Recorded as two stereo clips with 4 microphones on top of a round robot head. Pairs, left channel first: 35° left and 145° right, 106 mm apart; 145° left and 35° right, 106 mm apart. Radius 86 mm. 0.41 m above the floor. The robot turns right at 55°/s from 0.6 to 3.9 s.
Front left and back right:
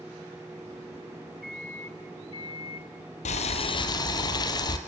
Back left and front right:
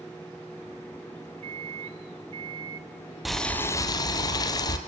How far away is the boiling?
About 2.0 m.